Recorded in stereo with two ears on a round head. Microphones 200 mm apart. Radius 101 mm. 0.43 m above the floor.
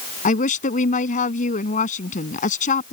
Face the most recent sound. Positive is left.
turn(degrees=35)  # may be behind; listen again after turning